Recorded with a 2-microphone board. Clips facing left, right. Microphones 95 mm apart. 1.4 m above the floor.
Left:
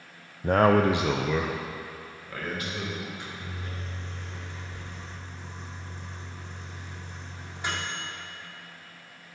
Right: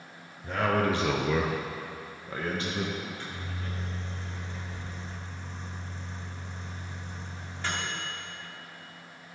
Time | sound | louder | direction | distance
0.4 | a man speaking | left 6 dB | 55° left (ahead or behind) | 0.6 m
3.0 | a microwave | even | 15° left (ahead or behind) | 3.5 m